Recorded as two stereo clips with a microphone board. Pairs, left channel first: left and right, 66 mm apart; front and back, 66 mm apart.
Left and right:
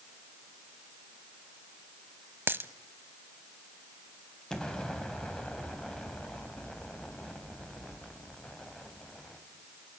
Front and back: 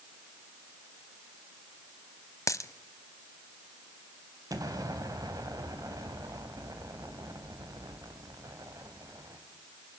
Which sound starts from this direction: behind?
An explosion, at 4.5 s.